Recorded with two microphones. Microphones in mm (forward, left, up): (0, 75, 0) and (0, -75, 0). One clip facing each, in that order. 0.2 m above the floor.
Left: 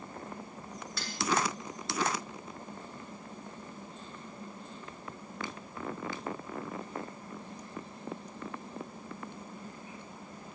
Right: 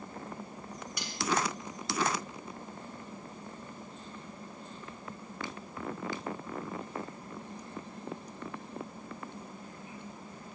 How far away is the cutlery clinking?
About 1.5 m.